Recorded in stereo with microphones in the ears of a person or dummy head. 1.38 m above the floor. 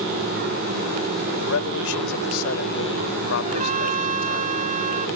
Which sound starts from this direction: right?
A trumpet, at 3.4 s.